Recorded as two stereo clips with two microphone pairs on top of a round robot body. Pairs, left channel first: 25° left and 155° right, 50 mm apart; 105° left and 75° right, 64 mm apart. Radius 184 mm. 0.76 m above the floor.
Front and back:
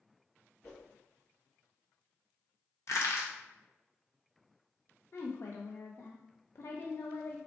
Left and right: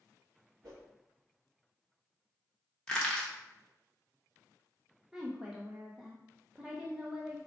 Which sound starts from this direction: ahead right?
A whoosh, at 0.6 s.